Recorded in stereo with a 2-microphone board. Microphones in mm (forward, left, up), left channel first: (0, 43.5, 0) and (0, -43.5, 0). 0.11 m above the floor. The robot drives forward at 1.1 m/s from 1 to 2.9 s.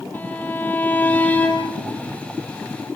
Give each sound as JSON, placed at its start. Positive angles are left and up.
{"t": 0.1, "sound": "a violin", "side_deg": 20, "distance_m": 4.0}